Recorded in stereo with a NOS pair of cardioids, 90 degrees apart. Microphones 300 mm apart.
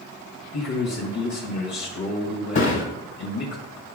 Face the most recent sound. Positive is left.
turn(degrees=45)